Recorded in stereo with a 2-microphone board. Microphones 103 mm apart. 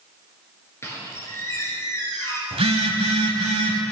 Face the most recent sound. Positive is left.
turn(degrees=-75)  # may be behind; listen again after turning